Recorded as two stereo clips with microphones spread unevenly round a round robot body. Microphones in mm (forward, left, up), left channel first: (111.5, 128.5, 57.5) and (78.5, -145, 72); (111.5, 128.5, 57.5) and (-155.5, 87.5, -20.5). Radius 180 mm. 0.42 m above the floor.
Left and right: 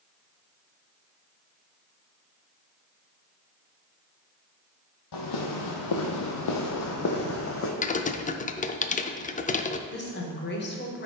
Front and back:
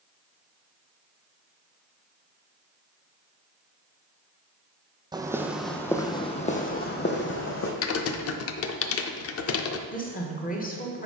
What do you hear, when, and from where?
5.1 s footsteps: 105° left, 1.0 m; by 7.7 s 40° left, 1.4 m
7.8 s typing on a keyboard: 40° left, 0.5 m
9.9 s a woman speaking: 75° left, 1.4 m